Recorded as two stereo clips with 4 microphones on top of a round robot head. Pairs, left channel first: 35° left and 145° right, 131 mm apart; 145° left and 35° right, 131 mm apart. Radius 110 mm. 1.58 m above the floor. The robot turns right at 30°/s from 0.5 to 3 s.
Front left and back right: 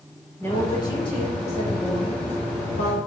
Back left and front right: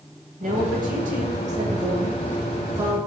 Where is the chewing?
No chewing in this recording.